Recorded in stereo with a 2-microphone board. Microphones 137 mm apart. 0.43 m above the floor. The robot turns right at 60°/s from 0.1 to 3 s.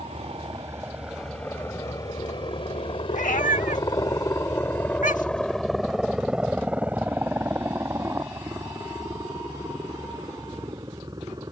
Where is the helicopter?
50° right (ahead or behind); by 11.5 s 30° right (ahead or behind).